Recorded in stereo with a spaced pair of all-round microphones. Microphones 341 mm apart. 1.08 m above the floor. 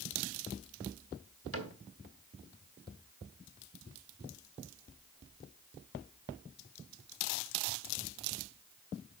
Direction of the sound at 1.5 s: 40° right (ahead or behind).